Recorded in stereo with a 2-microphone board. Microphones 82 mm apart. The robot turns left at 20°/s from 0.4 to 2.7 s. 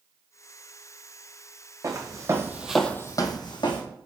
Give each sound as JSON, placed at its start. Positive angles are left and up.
{"t": 1.8, "sound": "footsteps", "side_deg": -40, "distance_m": 1.2}